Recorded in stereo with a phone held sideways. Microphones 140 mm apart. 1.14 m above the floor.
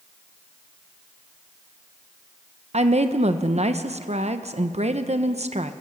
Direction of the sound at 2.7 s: 50° right (ahead or behind).